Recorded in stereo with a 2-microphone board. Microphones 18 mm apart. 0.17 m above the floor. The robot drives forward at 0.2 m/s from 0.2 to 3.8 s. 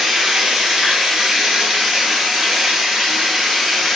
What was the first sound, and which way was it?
Running water, 45° right (ahead or behind).